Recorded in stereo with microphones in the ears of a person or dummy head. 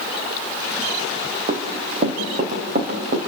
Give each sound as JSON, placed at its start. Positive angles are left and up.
{"t": 1.5, "sound": "running footsteps", "side_deg": -40, "distance_m": 3.5}